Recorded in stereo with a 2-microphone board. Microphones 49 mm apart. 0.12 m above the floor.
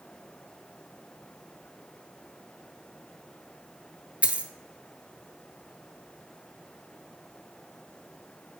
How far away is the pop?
I don't hear a pop.